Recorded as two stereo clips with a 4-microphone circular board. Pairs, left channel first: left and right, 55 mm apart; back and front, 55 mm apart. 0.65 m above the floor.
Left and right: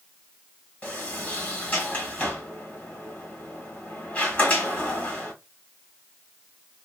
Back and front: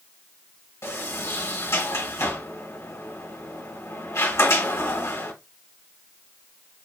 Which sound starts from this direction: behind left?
A sliding door, at 0.8 s.